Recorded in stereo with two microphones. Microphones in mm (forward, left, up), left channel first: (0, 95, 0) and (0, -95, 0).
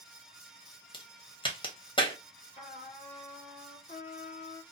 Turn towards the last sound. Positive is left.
turn(degrees=40)  # may be behind; listen again after turning